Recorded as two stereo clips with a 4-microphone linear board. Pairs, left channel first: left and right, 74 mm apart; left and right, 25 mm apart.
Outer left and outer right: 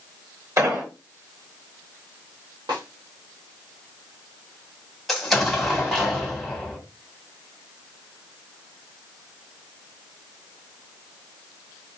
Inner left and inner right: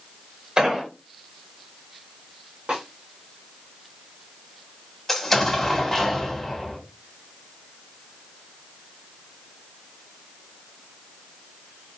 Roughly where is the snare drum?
Right.